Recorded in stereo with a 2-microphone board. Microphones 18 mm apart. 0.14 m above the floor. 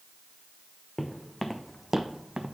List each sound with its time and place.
1.0 s footsteps: 20° left (ahead or behind), 0.9 m; by 2.6 s 55° right (ahead or behind), 0.5 m